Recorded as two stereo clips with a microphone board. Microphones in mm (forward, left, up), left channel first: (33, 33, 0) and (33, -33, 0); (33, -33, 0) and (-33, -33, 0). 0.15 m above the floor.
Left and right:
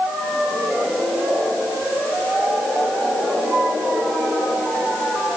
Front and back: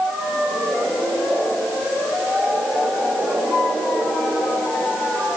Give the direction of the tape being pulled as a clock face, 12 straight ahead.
No tape being pulled in this recording.